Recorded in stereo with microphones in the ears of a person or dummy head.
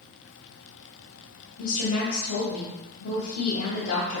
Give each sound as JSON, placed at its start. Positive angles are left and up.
{"t": 1.6, "sound": "a woman speaking", "side_deg": 70, "distance_m": 1.3}